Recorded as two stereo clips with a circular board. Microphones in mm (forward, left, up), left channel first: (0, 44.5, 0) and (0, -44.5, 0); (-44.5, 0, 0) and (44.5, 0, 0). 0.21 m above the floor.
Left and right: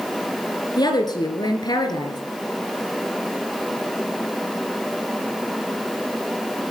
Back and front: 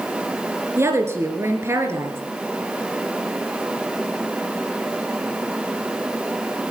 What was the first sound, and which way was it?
A woman speaking, 55° left.